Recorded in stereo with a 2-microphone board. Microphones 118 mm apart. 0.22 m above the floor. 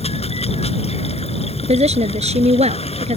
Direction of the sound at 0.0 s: 65° left (ahead or behind).